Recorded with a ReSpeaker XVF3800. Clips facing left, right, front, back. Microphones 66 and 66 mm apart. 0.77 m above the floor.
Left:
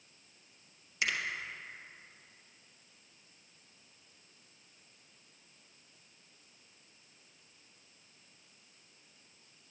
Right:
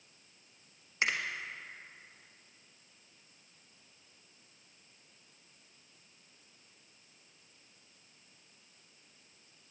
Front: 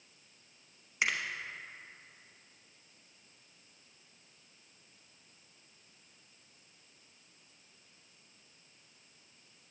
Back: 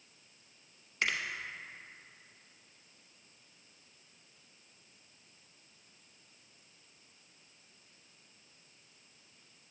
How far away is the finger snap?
About 0.9 m.